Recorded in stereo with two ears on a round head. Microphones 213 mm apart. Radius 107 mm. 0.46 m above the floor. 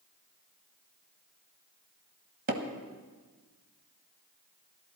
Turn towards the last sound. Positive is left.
turn(degrees=-35)  # may be behind; listen again after turning